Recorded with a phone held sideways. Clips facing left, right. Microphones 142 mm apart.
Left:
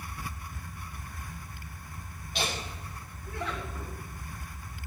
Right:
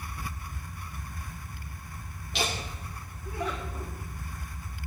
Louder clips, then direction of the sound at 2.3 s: Right 2 dB; 75° right (ahead or behind).